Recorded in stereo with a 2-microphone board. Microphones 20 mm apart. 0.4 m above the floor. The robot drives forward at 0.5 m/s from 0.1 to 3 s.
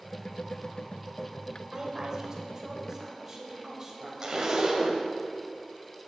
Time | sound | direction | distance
1.7 | a woman speaking | 30° right (ahead or behind) | 1.4 m
4.2 | a zipper | 30° right (ahead or behind) | 1.0 m